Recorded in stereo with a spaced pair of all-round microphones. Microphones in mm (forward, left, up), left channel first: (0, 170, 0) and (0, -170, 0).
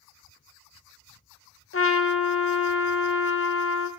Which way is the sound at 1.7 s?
40° left (ahead or behind).